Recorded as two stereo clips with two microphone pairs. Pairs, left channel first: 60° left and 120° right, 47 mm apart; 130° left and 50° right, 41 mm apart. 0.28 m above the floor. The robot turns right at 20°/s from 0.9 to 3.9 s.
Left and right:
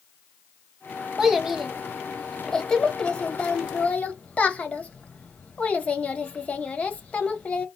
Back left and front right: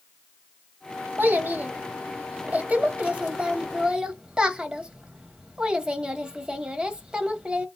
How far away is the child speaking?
About 0.7 m.